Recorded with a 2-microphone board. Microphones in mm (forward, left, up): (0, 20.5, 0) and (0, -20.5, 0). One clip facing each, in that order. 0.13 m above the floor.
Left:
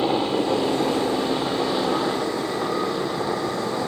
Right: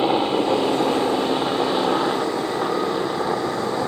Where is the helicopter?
20° right (ahead or behind); by 3.9 s 25° right (ahead or behind).